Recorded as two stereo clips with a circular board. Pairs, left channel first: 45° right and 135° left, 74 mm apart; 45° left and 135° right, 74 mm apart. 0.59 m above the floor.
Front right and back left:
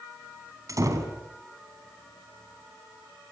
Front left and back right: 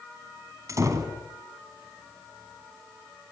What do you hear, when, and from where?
0.7 s a door slam: straight behind, 4 m